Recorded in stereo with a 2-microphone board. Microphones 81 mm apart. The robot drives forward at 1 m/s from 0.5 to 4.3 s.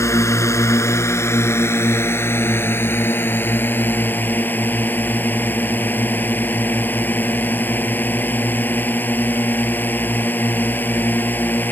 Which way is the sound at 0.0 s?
35° left (ahead or behind).